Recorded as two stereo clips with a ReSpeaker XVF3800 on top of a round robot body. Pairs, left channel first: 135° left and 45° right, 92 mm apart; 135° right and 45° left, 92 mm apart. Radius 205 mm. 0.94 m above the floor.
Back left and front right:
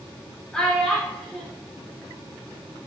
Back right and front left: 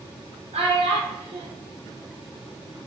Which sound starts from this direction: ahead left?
A child speaking, at 0.5 s.